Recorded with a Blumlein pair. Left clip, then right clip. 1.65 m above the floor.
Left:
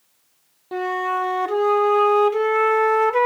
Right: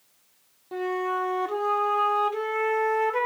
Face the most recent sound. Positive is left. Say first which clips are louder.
# left 5 dB
turn(degrees=20)